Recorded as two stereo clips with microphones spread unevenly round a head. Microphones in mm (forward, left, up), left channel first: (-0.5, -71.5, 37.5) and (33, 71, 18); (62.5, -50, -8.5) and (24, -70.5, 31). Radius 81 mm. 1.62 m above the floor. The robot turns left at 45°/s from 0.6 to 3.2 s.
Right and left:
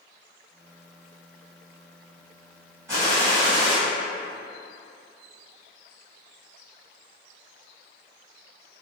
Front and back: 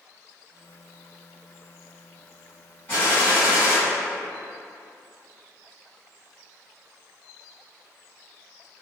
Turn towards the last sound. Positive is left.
turn(degrees=135)